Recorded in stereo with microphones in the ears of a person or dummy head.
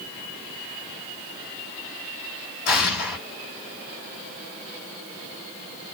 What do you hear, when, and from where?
2.6 s an explosion: 65° left (ahead or behind), 2 m